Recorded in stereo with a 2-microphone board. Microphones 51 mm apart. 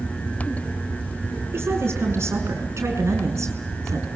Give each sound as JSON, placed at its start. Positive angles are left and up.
{"t": 1.5, "sound": "a woman speaking", "side_deg": -55, "distance_m": 5.5}